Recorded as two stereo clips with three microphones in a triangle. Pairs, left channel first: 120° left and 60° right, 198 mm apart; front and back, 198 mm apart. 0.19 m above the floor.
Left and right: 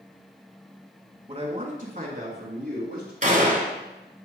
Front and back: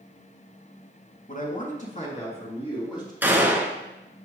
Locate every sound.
1.3 s a man speaking: 10° right, 2 m; by 3.1 s 65° right, 3.5 m
3.2 s a gunshot: 100° right, 1.3 m